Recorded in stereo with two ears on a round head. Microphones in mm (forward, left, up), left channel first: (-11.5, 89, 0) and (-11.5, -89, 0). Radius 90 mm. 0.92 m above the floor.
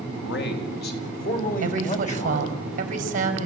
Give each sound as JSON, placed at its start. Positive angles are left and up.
{"t": 0.2, "sound": "a man speaking", "side_deg": 65, "distance_m": 4.0}
{"t": 1.6, "sound": "a woman speaking", "side_deg": -40, "distance_m": 4.5}